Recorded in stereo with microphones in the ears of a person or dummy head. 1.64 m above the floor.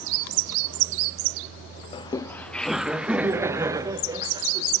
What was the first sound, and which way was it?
Laughter, 25° left (ahead or behind).